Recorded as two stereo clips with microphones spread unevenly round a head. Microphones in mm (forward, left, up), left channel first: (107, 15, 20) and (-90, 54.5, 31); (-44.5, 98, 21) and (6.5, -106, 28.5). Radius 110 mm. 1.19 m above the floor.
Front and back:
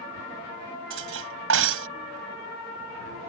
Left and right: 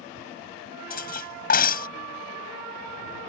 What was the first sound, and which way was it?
Cutlery clinking, 155° left.